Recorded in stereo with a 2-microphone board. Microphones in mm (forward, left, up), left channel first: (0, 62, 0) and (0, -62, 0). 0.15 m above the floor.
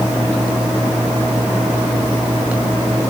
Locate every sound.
Only background noise.